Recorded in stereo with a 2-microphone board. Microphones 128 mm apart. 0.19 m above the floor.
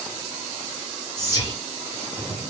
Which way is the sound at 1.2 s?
30° left (ahead or behind).